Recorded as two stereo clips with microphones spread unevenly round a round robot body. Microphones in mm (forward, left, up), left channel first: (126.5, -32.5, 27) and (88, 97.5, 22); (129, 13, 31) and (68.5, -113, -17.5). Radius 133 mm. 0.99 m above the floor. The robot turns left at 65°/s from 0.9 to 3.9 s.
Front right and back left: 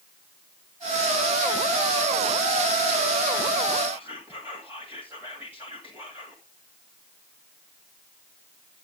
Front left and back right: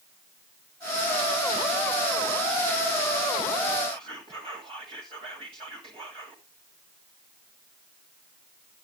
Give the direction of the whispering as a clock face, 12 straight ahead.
6 o'clock.